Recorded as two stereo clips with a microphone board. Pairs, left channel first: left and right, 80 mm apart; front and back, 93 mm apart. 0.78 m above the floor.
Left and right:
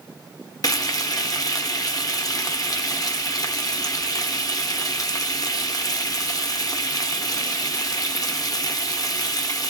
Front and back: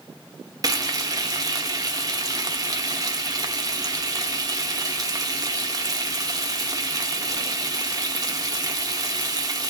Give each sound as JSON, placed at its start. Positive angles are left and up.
{"t": 0.6, "sound": "frying", "azimuth_deg": 130, "distance_m": 0.5}